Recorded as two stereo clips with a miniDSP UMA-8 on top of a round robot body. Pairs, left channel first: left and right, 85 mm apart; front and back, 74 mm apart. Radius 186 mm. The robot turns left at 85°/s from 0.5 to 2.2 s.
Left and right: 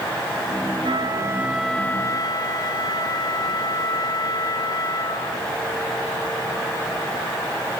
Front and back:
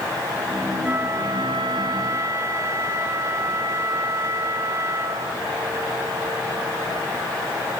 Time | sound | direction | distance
0.8 | a flute | 110° right | 1.4 m